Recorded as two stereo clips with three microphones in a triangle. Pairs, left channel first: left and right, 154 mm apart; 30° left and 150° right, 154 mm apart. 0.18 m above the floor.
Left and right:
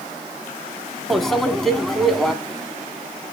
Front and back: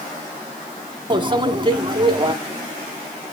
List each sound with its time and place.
1.1 s a microwave: straight behind, 1.0 m